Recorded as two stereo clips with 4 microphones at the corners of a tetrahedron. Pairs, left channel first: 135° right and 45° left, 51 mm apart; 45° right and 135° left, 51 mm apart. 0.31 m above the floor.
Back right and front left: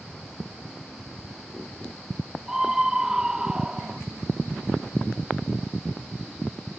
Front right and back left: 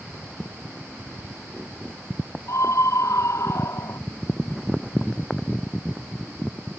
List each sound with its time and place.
2.5 s a scream: 35° right; by 4.0 s 30° right